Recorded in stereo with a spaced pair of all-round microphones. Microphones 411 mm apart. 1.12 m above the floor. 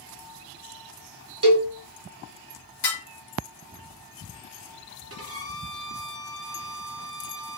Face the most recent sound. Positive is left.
turn(degrees=-35)  # may be behind; listen again after turning